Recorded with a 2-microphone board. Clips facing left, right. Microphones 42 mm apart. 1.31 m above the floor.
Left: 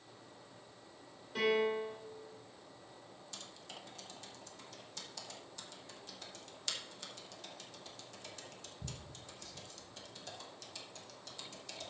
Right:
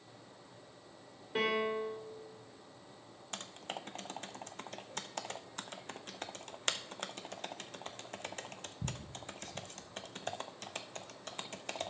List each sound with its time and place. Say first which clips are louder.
1.4 s a piano: left 1 dB; 35° right (ahead or behind), 2.5 m
3.3 s typing on a keyboard: right 9 dB; 55° right (ahead or behind), 0.7 m